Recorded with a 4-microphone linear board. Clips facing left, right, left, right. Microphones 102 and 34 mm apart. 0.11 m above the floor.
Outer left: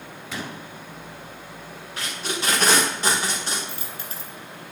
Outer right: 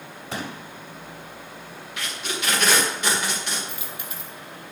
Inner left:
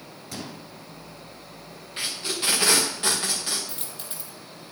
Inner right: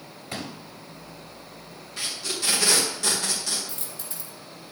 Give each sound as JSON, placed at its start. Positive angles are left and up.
{"t": 0.3, "sound": "a pop", "side_deg": -35, "distance_m": 2.0}
{"t": 2.0, "sound": "tape being pulled", "side_deg": 35, "distance_m": 4.5}
{"t": 3.7, "sound": "a dropped coin", "side_deg": 35, "distance_m": 2.0}